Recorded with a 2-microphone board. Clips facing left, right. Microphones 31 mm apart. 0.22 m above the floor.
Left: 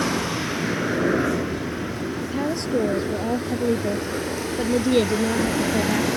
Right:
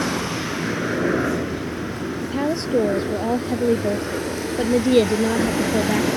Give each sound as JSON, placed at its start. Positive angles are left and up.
{"t": 0.0, "sound": "a helicopter", "side_deg": 0}
{"t": 2.2, "sound": "a woman speaking", "side_deg": -15}